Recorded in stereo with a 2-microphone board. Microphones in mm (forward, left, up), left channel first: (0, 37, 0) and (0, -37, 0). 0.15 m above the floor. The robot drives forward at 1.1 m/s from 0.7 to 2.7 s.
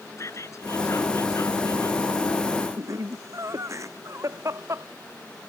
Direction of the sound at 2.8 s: 45° right (ahead or behind).